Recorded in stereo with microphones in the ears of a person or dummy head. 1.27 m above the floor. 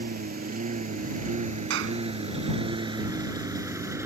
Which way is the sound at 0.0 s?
50° right (ahead or behind).